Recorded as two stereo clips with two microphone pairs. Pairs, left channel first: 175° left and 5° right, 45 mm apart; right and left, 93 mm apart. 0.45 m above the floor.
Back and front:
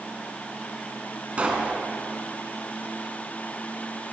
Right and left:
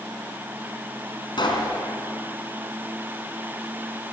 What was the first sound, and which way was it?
A pop, 65° right.